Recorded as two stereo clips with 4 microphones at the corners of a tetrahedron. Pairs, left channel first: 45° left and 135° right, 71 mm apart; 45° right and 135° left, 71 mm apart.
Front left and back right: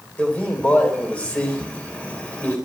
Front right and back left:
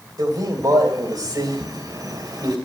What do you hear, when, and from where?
0.2 s a man speaking: 115° left, 3 m